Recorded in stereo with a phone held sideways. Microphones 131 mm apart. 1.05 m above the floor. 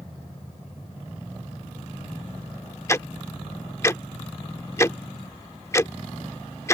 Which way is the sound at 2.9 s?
20° left (ahead or behind).